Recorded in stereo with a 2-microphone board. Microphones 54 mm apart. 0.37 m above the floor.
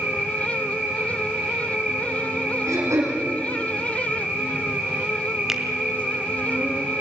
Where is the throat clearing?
80° right, 7 m.